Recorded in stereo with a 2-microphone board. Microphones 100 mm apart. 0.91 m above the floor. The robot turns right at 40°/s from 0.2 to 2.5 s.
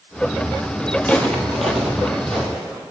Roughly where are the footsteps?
Centre.